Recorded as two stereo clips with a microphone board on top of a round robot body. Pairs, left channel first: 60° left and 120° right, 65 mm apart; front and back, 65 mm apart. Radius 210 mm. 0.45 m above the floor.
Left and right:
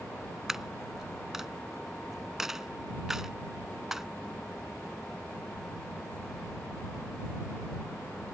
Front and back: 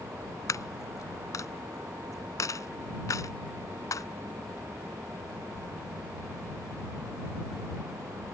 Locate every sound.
0.5 s a dropped coin: 35° right